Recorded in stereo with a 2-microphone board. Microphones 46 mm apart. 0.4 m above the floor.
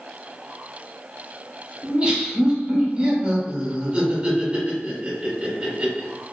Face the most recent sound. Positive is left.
turn(degrees=-30)  # may be behind; listen again after turning